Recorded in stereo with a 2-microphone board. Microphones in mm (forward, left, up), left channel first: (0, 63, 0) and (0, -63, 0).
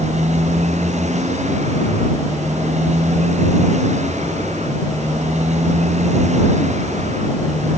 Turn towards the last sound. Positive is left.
turn(degrees=-75)  # may be behind; listen again after turning